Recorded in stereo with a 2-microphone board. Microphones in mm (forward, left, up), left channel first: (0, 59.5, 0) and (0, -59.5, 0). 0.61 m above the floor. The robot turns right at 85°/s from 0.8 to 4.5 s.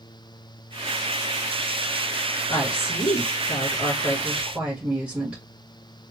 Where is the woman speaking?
20° left, 2.0 m; by 5.4 s 170° right, 2.0 m.